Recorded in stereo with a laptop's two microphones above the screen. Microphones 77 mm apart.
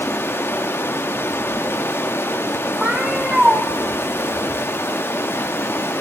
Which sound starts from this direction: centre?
A cat meowing, at 2.8 s.